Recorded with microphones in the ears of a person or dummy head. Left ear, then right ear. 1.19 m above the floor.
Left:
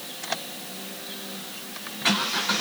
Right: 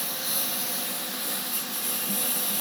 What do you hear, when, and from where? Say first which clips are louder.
0.0 s a lawn mower: right 1 dB; 60° right (ahead or behind)